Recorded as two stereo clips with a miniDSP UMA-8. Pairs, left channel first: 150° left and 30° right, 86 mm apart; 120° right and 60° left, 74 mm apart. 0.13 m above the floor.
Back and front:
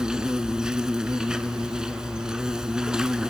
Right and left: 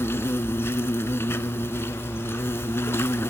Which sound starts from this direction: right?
An insect, at 0.0 s.